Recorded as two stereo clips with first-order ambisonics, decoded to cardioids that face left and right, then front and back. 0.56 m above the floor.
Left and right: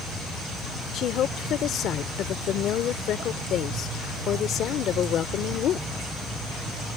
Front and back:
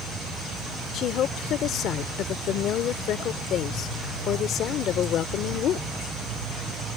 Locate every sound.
0.9 s a woman speaking: 45° left